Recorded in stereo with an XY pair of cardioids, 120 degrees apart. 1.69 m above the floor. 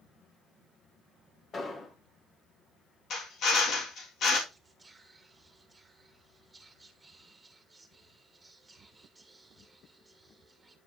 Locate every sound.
1.5 s an explosion: 35° left, 1.8 m
3.1 s a drill: 60° left, 3.5 m
4.5 s whispering: 15° right, 2.5 m